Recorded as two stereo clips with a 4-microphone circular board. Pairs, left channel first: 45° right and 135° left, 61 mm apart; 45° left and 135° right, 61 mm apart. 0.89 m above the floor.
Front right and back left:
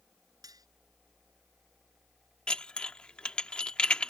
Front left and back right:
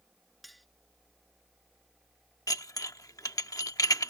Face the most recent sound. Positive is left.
turn(degrees=30)